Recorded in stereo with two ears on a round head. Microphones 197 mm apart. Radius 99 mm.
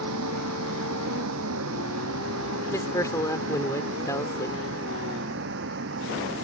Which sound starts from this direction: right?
A vehicle, at 0.0 s.